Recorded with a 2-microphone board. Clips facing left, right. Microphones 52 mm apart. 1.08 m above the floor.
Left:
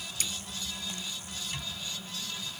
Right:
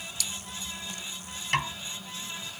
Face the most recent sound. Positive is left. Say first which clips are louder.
# right 15 dB
turn(degrees=-75)  # may be behind; listen again after turning